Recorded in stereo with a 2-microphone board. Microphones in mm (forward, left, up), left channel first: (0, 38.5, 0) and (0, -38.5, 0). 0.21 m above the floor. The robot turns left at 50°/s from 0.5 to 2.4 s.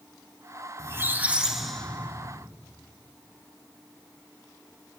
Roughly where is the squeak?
Behind right.